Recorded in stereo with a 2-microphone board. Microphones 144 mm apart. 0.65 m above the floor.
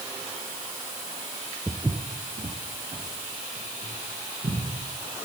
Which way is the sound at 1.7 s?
5° left (ahead or behind).